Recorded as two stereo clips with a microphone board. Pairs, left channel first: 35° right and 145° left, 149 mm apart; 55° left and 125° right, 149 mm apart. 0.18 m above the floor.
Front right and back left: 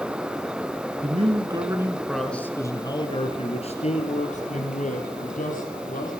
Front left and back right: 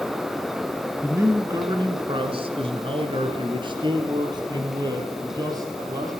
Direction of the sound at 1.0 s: 165° left.